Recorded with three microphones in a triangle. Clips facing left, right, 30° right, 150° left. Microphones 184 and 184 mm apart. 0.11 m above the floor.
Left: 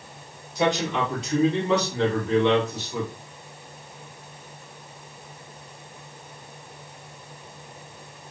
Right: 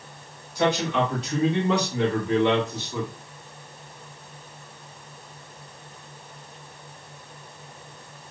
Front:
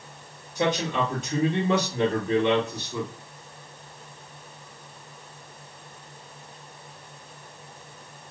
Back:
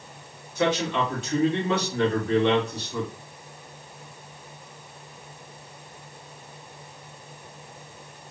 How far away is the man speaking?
About 1.8 m.